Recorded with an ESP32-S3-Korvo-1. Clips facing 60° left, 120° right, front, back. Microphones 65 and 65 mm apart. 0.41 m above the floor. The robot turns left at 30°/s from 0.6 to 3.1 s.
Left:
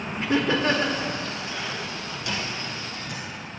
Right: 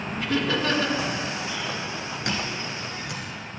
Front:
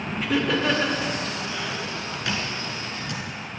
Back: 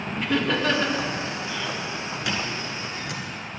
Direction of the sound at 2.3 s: 90° right.